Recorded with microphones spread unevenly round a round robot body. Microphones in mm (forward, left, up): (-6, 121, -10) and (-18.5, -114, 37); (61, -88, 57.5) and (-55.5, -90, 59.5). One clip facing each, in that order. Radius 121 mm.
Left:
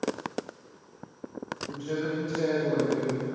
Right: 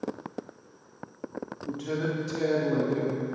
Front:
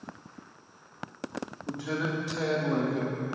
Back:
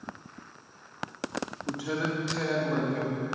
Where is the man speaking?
105° right, 1.7 m; by 3.2 s 50° right, 2.5 m.